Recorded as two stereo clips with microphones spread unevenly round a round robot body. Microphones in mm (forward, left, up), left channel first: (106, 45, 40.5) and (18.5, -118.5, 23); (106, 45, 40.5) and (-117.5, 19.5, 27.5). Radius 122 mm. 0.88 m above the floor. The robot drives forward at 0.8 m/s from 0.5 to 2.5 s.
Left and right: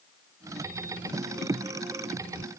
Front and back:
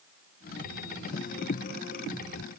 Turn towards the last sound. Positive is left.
No sound to turn to.